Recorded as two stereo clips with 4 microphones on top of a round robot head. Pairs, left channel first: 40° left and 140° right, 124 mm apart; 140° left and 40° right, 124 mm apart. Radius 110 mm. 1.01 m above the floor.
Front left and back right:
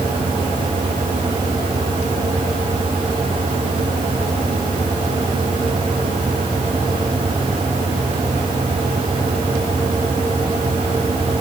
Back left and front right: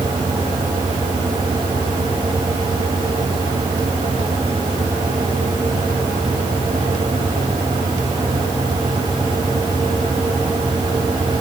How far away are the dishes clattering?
I don't hear dishes clattering.